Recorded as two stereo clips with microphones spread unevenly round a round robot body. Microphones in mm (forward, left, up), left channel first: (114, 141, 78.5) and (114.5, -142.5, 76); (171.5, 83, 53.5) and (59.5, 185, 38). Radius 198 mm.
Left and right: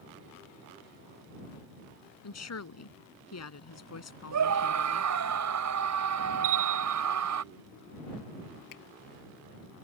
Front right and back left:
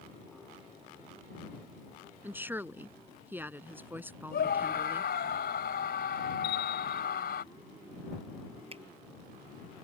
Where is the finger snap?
90° left.